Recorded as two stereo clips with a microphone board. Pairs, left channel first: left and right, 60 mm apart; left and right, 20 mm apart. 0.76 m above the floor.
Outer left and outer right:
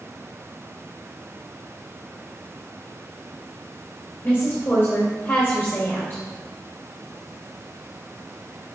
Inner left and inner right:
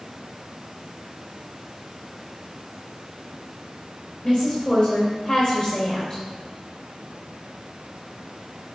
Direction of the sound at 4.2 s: 35° left (ahead or behind).